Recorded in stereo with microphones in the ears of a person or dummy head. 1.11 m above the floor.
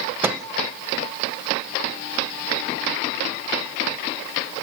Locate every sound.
0.2 s a microwave: 10° right (ahead or behind), 0.5 m